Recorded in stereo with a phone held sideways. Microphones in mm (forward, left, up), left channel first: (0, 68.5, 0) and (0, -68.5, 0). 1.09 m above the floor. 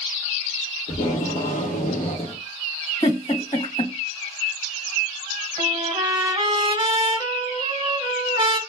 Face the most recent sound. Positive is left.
turn(degrees=-30)  # may be behind; listen again after turning